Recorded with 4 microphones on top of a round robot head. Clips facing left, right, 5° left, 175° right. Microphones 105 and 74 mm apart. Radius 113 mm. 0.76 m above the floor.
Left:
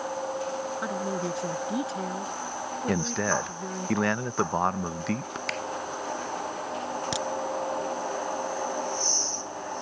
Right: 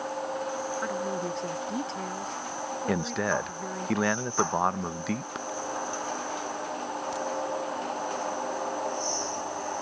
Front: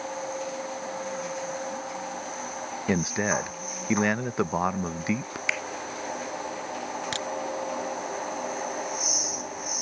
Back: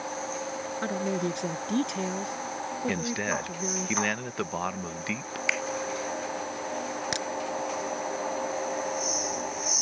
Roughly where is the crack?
Behind left.